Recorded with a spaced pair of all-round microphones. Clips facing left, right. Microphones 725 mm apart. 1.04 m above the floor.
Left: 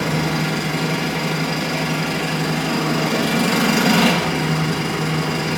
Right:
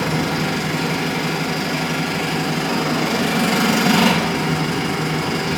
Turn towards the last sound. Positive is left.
turn(degrees=-35)  # may be behind; listen again after turning